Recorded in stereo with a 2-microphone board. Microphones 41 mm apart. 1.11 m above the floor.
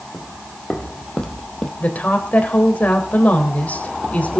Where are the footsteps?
25° left (ahead or behind), 3 m; by 1.7 s 15° left (ahead or behind), 2.5 m.